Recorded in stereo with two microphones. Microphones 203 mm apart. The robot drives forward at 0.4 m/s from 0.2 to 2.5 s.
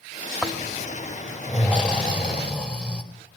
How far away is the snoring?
About 2 m.